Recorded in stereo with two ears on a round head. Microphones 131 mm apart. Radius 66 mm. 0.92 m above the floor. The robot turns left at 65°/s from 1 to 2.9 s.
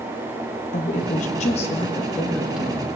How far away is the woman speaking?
About 1.1 m.